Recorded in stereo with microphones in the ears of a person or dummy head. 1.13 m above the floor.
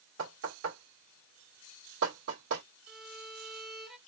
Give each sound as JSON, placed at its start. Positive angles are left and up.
{"t": 0.2, "sound": "knocking", "side_deg": -80, "distance_m": 2.0}
{"t": 2.9, "sound": "a violin", "side_deg": 0, "distance_m": 0.9}